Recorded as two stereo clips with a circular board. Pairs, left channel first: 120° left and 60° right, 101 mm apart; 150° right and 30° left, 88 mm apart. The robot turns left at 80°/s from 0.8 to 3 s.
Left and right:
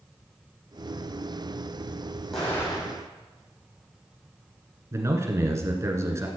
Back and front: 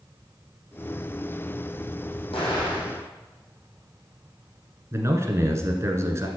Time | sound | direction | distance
2.3 | an explosion | 155° right | 5.5 m
4.9 | a man speaking | 15° right | 1.6 m